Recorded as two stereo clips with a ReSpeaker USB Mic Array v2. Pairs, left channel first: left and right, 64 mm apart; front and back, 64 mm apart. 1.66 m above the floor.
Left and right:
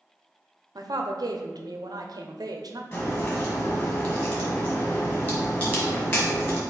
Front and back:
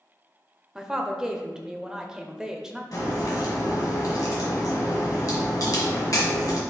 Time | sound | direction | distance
0.8 | a woman speaking | 100° right | 0.6 m
2.9 | a crack | 35° left | 1.7 m